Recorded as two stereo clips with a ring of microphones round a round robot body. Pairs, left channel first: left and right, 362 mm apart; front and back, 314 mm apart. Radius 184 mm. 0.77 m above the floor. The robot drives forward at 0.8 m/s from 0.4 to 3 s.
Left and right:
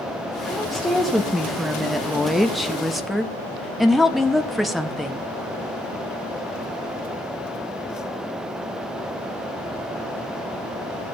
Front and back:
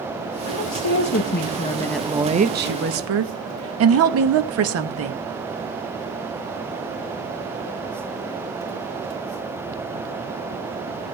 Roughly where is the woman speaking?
Ahead.